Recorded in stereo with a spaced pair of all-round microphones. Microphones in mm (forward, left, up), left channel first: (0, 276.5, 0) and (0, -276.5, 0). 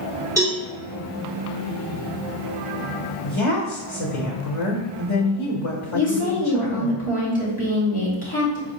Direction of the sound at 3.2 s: 60° left (ahead or behind).